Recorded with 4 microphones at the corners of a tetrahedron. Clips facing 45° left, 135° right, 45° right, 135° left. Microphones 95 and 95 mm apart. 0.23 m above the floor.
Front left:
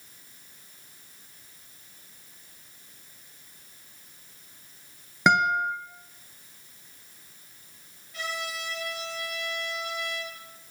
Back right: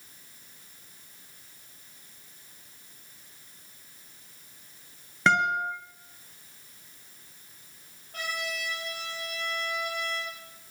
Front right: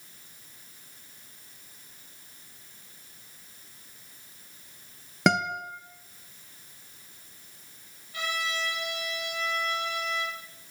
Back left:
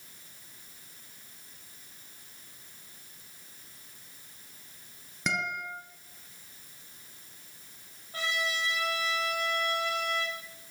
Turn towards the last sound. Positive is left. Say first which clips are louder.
# even, even
turn(degrees=-175)